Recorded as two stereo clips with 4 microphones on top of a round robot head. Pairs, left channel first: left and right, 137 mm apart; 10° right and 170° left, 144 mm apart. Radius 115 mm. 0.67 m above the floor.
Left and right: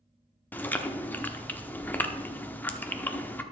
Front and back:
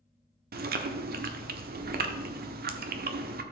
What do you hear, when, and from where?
0.5 s chewing: 170° left, 0.8 m